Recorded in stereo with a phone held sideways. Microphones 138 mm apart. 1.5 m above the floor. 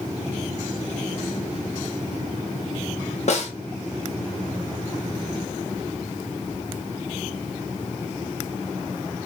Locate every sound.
3.3 s a snare drum: 55° left (ahead or behind), 0.7 m